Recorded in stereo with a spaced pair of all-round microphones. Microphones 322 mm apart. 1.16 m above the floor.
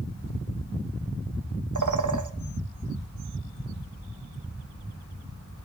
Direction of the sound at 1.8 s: 65° right (ahead or behind).